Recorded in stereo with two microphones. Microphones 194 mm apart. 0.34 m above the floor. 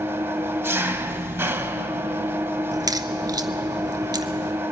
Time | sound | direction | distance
0.0 | an engine running | 10° right (ahead or behind) | 0.9 m
2.7 | a crack | 20° right (ahead or behind) | 0.9 m